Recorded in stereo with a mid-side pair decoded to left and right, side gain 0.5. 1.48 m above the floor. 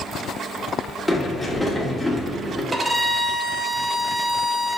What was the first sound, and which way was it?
A sliding door, straight ahead.